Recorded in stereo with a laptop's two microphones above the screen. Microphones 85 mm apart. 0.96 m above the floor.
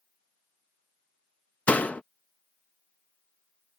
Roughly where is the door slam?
Centre.